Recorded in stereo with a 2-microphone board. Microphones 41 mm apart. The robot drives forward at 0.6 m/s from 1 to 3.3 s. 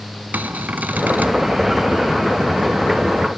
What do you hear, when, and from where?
0.3 s a cupboard door: 50° right (ahead or behind), 1.2 m; by 1.4 s 45° right (ahead or behind), 1.3 m